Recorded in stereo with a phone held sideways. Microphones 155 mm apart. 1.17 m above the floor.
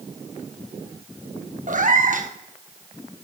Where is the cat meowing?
55° right (ahead or behind), 1.1 m.